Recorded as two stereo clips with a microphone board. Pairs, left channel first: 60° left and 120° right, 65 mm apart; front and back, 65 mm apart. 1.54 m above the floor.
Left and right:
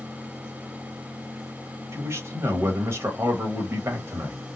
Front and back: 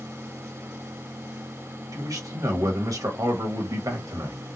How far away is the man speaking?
About 1.6 m.